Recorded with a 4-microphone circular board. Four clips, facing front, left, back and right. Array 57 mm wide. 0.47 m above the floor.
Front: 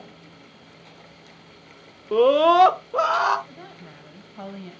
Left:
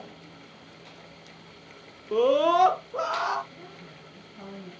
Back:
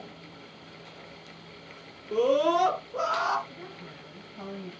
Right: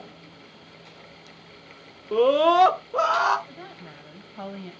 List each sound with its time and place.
2.1 s a scream: 10° right, 0.9 m; by 3.4 s 35° right, 1.5 m
3.5 s a woman speaking: 60° right, 3 m